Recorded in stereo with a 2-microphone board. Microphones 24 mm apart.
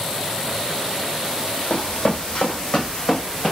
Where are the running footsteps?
65° left (ahead or behind), 1.0 m; by 3.5 s 35° left (ahead or behind), 1.7 m.